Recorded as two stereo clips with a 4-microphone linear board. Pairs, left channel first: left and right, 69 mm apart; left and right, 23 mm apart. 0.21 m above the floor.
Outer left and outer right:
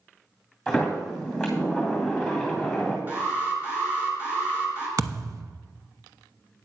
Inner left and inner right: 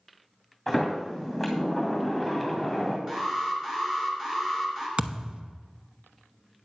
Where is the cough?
I don't hear a cough.